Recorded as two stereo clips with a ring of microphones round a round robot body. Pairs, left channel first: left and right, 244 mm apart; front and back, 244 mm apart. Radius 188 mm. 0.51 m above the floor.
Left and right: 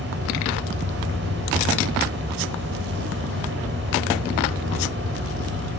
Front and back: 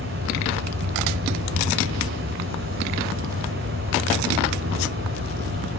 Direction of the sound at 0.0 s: 140° right.